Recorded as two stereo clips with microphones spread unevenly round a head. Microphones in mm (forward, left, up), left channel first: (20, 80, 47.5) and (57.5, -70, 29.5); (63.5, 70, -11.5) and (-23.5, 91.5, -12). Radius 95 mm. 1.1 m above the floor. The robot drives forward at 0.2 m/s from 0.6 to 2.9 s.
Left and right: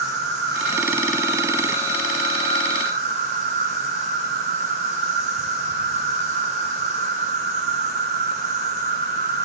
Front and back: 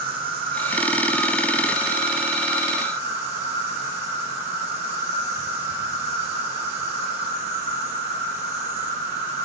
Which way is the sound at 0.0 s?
Straight behind.